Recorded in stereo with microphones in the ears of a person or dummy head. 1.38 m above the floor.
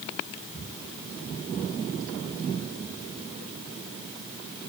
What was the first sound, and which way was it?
Only background noise.